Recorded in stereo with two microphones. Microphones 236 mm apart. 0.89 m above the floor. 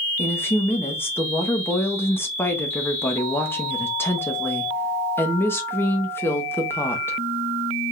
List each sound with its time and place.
0.2 s a woman speaking: 10° left (ahead or behind), 1.3 m